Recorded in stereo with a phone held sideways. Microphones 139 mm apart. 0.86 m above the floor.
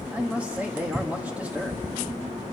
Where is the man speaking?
10° right (ahead or behind), 1.3 m.